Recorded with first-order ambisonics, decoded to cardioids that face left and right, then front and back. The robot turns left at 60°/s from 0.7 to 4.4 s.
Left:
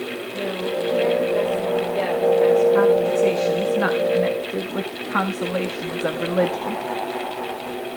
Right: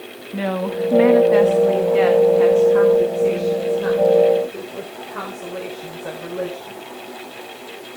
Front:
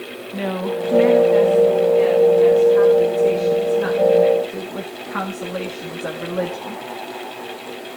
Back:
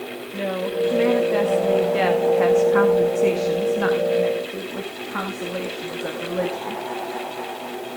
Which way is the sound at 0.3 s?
55° right.